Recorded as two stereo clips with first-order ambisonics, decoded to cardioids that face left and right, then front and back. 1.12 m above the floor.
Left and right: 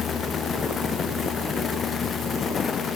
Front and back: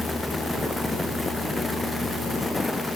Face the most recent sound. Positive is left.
No sound to turn to.